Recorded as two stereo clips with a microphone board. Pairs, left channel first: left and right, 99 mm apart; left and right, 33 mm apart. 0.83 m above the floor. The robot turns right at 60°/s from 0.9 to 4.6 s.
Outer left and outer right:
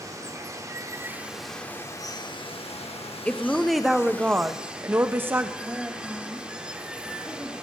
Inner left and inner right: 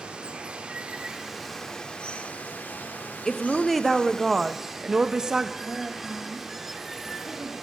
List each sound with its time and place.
0.0 s running water: 30° right, 0.7 m; by 7.7 s 170° right, 0.7 m
3.2 s a woman speaking: 10° left (ahead or behind), 0.5 m; by 5.5 s 20° right (ahead or behind), 0.5 m
5.6 s a woman speaking: 5° right (ahead or behind), 1.8 m